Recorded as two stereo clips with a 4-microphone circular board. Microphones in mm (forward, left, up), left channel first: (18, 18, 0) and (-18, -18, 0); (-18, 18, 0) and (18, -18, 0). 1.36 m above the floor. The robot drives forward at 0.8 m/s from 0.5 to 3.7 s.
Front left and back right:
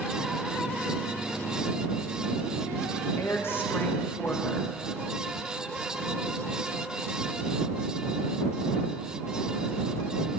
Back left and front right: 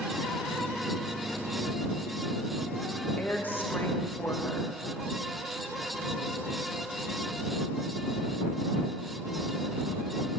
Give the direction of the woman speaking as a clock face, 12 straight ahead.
10 o'clock.